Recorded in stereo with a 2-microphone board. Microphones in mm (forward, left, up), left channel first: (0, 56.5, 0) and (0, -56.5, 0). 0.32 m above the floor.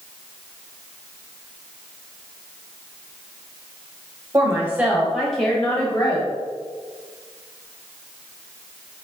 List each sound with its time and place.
4.3 s a woman speaking: 25° right (ahead or behind), 1.0 m; by 6.3 s 35° left (ahead or behind), 1.4 m